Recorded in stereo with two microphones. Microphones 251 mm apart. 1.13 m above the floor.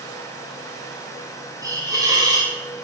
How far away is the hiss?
About 1.0 m.